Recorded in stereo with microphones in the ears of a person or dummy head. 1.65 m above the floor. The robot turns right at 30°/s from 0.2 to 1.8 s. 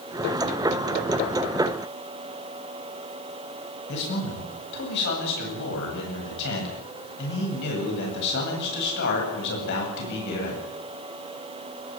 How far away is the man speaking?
About 10 m.